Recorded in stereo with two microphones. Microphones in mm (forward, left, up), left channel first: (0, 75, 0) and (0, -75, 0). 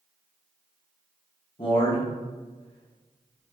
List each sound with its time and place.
1.6 s a man speaking: 35° left (ahead or behind), 0.7 m